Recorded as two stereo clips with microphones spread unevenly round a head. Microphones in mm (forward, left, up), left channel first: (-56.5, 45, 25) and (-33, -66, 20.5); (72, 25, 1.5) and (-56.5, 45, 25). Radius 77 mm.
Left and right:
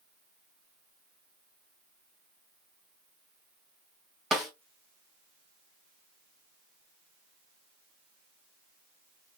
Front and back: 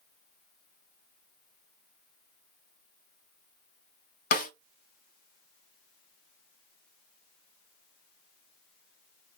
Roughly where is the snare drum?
Ahead.